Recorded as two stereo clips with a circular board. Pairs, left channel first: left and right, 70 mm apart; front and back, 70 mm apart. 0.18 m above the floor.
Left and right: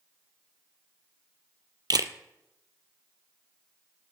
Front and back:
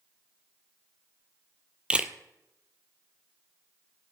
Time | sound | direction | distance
1.9 | a camera shutter | 105° right | 0.8 m